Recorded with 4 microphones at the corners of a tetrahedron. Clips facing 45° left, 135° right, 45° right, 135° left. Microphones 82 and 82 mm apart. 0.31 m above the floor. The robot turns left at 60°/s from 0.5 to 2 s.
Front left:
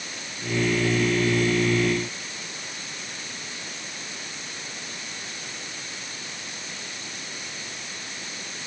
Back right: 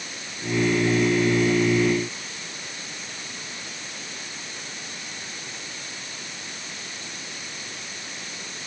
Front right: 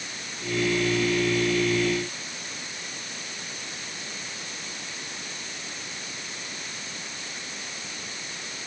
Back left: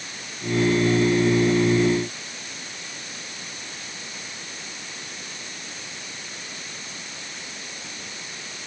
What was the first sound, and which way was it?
Only background noise.